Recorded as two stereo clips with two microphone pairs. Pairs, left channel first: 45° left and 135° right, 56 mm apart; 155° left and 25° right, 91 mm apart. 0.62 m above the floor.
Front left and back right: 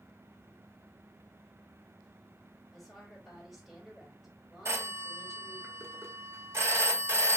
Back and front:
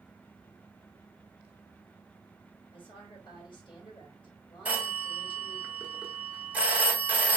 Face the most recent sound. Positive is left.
turn(degrees=-100)